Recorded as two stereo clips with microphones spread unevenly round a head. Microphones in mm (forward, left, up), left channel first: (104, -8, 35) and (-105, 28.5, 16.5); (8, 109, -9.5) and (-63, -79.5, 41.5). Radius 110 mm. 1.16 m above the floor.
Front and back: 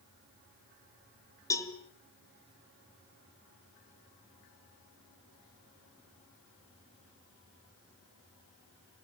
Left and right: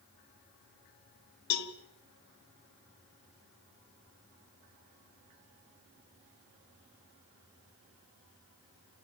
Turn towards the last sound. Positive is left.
turn(degrees=65)